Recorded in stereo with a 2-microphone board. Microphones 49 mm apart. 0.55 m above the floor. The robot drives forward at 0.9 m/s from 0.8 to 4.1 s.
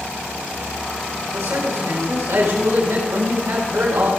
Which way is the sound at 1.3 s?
75° right (ahead or behind).